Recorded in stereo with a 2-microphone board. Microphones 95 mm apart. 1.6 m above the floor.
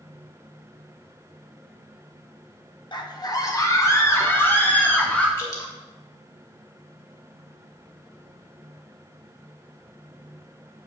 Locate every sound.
2.9 s a scream: 45° left (ahead or behind), 1.8 m; by 5.3 s 15° left (ahead or behind), 3 m
5.4 s dripping: 40° left (ahead or behind), 2.5 m